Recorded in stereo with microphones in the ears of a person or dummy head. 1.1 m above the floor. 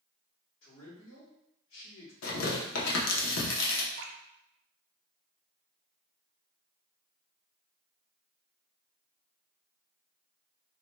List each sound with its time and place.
0.6 s a man speaking: 70° left (ahead or behind), 1.6 m
2.2 s tearing paper: 85° left, 0.9 m
4.0 s dripping: 65° right (ahead or behind), 0.6 m